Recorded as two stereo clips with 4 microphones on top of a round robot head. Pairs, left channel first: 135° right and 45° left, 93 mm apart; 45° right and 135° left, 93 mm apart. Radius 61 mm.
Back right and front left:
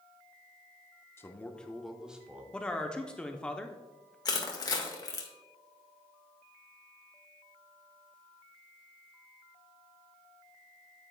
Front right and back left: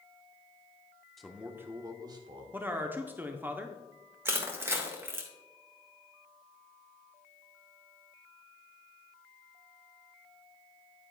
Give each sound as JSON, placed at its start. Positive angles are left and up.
{"t": 1.2, "sound": "a man speaking", "azimuth_deg": -135, "distance_m": 1.0}
{"t": 2.5, "sound": "a man speaking", "azimuth_deg": 160, "distance_m": 0.8}
{"t": 4.2, "sound": "crushing", "azimuth_deg": -170, "distance_m": 1.7}